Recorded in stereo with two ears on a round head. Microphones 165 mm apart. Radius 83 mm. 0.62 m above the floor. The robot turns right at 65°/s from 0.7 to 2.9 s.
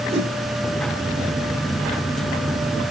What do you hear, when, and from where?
0.1 s a whoosh: 35° right (ahead or behind), 4.5 m